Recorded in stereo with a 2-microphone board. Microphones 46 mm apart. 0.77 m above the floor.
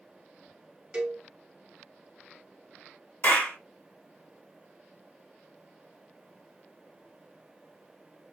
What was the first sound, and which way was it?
A cowbell, 20° right (ahead or behind).